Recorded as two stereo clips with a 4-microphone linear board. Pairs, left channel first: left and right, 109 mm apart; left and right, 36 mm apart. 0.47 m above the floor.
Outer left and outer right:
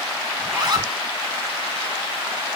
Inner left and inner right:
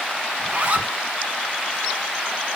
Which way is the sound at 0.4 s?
40° right (ahead or behind).